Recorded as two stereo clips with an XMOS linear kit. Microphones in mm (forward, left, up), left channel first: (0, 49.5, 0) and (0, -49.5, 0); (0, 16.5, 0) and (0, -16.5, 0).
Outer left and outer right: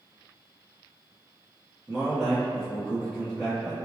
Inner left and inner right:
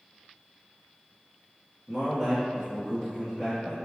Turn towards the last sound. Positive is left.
turn(degrees=0)  # may be behind; listen again after turning